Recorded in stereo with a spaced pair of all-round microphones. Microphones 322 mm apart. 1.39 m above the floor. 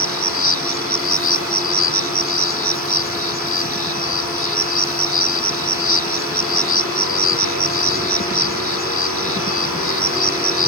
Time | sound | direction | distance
0.0 | an insect | 40° left (ahead or behind) | ?